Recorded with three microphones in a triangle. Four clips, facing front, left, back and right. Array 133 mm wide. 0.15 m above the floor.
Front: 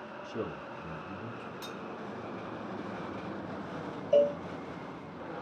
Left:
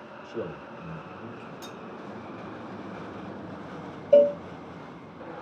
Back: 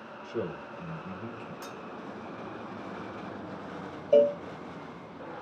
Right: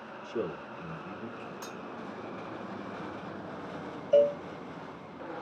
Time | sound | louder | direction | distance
0.2 | a man speaking | right 1 dB, back 4 dB | 175° right | 3 m
1.6 | cutlery clinking | left 1 dB, even | 110° right | 0.7 m
4.1 | a cowbell | left 5 dB, back 3 dB | 120° left | 0.7 m